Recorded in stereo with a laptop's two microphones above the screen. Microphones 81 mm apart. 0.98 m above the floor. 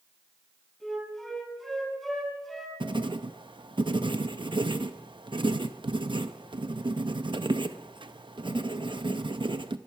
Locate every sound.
0.8 s a flute: centre (ahead or behind), 4 m
2.8 s writing: 80° right, 0.7 m